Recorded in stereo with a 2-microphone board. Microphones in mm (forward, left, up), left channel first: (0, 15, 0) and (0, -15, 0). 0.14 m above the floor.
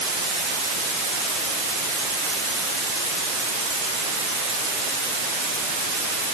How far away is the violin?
No violin in this recording.